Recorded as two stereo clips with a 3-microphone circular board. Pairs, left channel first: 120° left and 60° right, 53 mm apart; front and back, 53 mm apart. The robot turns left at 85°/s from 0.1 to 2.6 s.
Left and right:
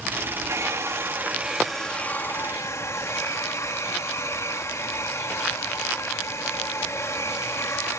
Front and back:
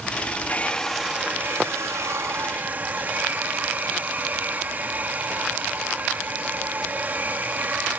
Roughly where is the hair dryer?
Ahead right.